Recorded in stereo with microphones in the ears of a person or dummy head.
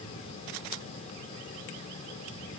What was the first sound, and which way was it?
Only background noise.